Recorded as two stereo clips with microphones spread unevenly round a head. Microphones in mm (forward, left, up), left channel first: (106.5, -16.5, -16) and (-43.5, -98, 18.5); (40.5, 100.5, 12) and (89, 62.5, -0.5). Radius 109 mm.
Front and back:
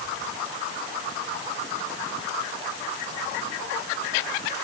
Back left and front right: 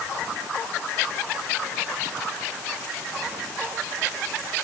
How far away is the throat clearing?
I don't hear throat clearing.